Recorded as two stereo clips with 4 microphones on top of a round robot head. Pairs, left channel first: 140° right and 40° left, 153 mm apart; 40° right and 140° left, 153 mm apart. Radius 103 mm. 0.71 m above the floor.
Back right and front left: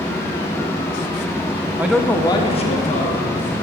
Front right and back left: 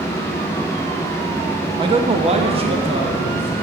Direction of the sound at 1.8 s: 110° left.